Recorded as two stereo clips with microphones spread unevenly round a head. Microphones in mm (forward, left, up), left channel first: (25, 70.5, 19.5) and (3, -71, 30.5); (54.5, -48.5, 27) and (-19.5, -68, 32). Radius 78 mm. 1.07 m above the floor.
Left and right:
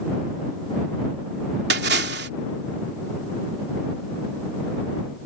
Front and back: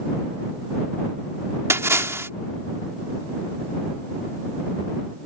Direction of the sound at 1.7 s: 110° right.